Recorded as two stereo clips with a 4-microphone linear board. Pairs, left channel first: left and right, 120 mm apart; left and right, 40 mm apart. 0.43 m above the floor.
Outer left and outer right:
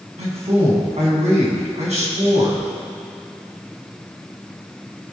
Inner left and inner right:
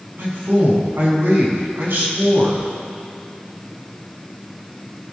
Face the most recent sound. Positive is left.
turn(degrees=-70)  # may be behind; listen again after turning